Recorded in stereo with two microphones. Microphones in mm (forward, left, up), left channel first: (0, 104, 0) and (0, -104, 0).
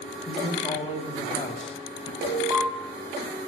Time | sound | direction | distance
0.3 | a man speaking | 30° left (ahead or behind) | 1.3 m
2.2 | an alarm | 30° right (ahead or behind) | 0.8 m